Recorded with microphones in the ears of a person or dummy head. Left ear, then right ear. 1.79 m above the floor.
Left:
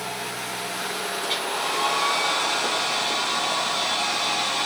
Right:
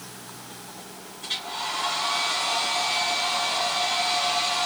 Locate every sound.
1.2 s a hair dryer: 30° left (ahead or behind), 2.5 m